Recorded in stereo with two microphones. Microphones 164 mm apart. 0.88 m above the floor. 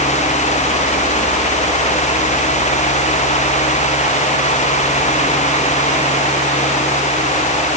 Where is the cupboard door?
No cupboard door in this recording.